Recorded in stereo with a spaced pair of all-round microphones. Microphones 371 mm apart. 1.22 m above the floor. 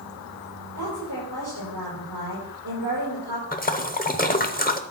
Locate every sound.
0.8 s a woman speaking: 50° right (ahead or behind), 6 m
3.5 s a splash: 25° left (ahead or behind), 0.7 m